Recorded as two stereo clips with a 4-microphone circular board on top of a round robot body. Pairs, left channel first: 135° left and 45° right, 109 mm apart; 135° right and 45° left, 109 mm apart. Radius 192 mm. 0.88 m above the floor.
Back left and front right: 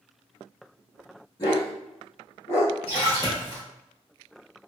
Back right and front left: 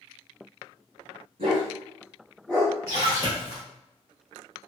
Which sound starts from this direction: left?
A dog barking, at 1.4 s.